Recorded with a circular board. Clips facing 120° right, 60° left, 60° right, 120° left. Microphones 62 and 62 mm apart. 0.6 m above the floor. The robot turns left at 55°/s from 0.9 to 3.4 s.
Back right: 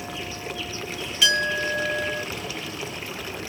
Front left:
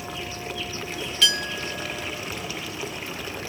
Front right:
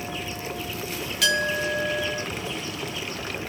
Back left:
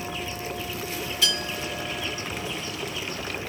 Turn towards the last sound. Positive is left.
turn(degrees=-160)